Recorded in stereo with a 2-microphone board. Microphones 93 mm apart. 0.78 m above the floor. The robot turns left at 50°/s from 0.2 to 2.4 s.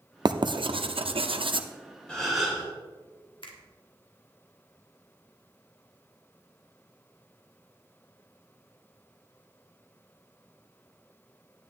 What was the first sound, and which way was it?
Writing, 50° right (ahead or behind).